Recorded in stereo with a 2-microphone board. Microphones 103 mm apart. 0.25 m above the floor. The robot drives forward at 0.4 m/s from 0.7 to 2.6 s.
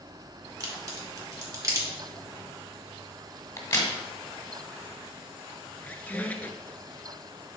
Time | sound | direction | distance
0.6 | a crack | 40° right (ahead or behind) | 2 m
3.6 | a crack | 30° left (ahead or behind) | 1.5 m
5.8 | a squeak | 15° left (ahead or behind) | 0.7 m